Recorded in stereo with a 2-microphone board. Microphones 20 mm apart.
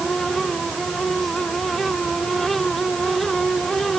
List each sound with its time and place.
Only background noise.